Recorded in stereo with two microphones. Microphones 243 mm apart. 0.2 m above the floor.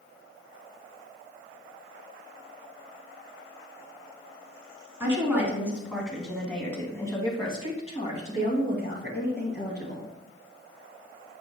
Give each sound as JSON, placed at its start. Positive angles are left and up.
{"t": 5.0, "sound": "a woman speaking", "side_deg": -10, "distance_m": 2.5}